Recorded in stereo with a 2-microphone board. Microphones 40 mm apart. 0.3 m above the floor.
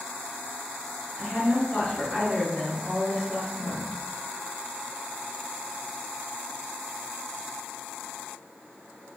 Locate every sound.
1.2 s a woman speaking: 25° left (ahead or behind), 1.2 m